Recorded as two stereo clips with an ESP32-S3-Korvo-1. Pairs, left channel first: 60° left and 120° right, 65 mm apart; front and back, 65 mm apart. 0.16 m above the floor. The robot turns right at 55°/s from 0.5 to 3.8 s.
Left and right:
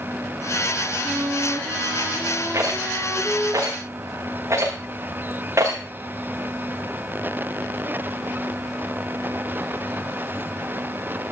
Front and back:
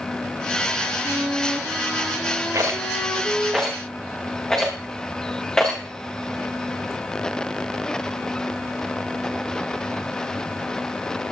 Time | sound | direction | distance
1.0 | a flute | 140° right | 3.5 m
2.5 | a rattle | 150° right | 5 m